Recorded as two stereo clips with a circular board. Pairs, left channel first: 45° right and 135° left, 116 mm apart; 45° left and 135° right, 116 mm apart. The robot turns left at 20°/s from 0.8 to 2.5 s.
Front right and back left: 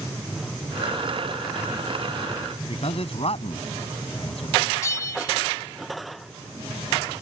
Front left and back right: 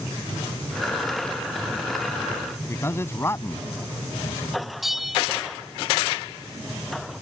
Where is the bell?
50° right.